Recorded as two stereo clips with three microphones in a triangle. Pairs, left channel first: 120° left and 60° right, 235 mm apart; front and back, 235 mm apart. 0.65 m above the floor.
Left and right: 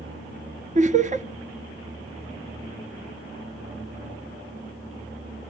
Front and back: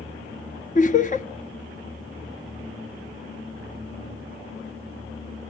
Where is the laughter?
25° right, 0.9 m.